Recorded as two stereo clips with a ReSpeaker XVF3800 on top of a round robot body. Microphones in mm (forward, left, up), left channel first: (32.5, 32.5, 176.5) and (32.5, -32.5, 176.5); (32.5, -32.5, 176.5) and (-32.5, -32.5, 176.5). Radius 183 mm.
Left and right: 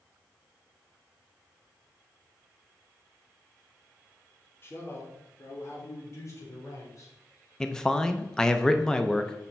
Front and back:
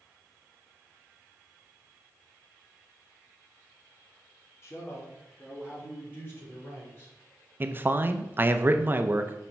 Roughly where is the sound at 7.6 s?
Behind.